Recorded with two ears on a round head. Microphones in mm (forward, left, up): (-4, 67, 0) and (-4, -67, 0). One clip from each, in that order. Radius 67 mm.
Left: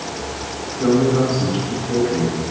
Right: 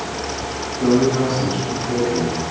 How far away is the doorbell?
No doorbell in this recording.